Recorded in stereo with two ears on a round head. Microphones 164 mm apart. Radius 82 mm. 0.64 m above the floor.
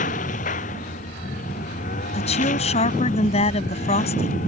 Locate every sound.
0.0 s a lawn mower: 45° left (ahead or behind)
2.1 s a woman speaking: 35° left (ahead or behind)